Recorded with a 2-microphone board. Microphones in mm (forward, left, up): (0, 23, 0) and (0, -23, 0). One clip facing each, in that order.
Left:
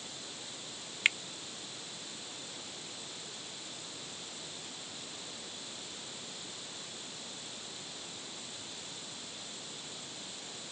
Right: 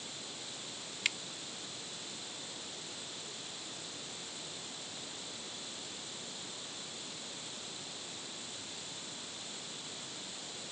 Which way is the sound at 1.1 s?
35° left (ahead or behind).